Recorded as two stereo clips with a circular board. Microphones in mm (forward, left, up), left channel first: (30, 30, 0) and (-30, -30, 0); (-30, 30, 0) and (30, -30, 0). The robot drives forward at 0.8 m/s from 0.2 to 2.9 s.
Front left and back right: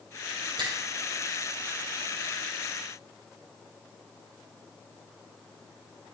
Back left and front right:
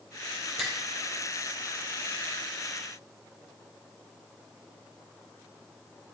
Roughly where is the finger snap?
Behind right.